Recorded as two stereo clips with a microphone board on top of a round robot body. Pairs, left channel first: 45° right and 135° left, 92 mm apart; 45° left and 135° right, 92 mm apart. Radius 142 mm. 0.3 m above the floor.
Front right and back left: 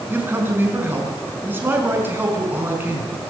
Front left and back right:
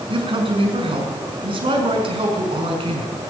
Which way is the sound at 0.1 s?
160° right.